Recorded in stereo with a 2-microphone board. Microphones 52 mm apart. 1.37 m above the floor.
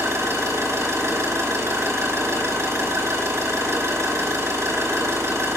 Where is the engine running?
60° right (ahead or behind), 2.0 m.